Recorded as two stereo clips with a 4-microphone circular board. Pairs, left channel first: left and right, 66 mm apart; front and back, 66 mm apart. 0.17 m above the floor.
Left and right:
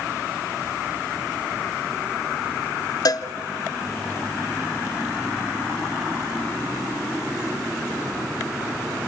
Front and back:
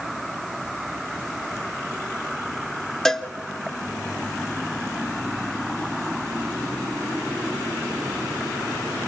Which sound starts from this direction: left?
A cowbell, at 3.0 s.